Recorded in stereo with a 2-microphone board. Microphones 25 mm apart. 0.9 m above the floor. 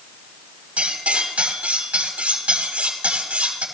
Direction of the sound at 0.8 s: 65° right (ahead or behind).